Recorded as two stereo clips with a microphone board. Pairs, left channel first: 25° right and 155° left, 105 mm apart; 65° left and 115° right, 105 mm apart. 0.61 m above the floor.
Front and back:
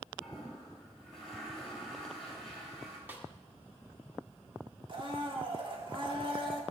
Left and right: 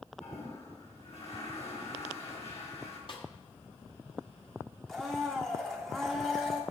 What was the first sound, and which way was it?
A toilet flushing, 65° left.